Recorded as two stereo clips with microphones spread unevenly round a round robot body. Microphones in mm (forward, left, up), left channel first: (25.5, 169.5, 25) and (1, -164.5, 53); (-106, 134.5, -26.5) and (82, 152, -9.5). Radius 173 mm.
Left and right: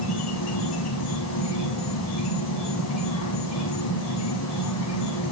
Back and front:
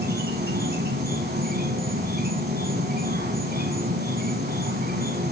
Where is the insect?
40° left, 2 m.